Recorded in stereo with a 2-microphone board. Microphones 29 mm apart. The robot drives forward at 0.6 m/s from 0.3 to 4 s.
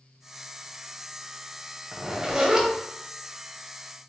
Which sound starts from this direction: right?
A zipper, at 1.9 s.